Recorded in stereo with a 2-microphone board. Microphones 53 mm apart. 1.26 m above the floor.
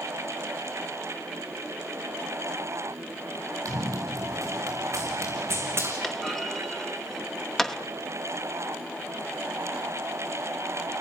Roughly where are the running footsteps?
Right.